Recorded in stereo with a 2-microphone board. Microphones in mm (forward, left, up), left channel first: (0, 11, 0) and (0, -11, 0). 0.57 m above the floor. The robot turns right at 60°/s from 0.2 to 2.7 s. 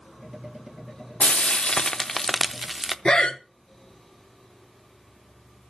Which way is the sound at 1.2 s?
105° left.